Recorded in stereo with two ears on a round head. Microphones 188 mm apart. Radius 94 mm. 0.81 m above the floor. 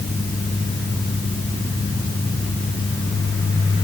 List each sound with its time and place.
Only background noise.